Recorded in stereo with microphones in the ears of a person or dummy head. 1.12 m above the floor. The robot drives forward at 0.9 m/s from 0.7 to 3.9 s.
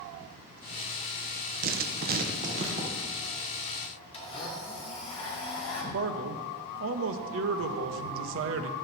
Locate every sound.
1.6 s writing: 45° right (ahead or behind), 0.8 m; by 2.9 s 30° right (ahead or behind), 1.2 m
4.1 s a blender: 30° left (ahead or behind), 1.5 m
5.9 s a man speaking: 80° right, 0.8 m